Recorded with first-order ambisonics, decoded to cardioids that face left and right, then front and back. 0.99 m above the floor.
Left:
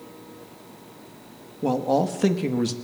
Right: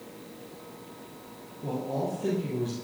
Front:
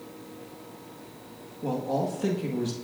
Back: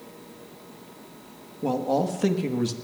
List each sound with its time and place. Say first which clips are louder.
1.6 s a man speaking: left 9 dB, back 4 dB; 110° left, 1.4 m